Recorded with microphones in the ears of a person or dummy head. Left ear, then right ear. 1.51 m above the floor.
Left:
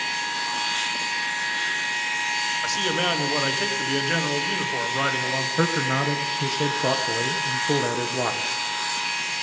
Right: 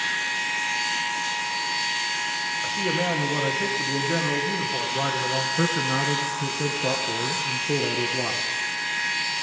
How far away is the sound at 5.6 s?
About 0.7 m.